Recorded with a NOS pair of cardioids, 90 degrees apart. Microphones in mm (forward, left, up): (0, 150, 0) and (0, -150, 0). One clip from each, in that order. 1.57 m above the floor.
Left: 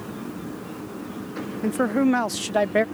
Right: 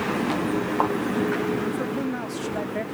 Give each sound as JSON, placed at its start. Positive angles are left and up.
{"t": 1.6, "sound": "a man speaking", "azimuth_deg": 55}